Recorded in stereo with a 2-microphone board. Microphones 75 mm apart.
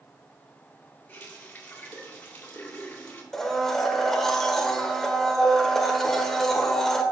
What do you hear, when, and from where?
1.1 s a running tap: 20° left (ahead or behind), 2.5 m
3.3 s a blender: 5° left (ahead or behind), 1.2 m